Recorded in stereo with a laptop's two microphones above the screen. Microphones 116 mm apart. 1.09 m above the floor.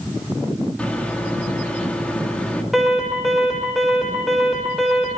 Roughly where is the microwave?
Centre.